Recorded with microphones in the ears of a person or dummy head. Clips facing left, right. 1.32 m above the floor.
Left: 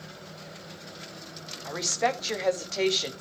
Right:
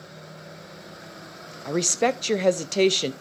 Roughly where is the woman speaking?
Right.